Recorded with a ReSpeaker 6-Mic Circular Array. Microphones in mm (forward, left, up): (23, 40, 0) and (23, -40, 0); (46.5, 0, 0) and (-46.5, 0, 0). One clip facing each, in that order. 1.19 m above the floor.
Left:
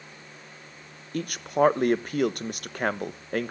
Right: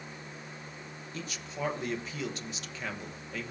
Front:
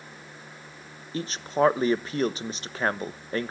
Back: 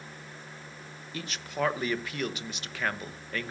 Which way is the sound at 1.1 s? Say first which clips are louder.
Left 15 dB, front 8 dB; 55° left.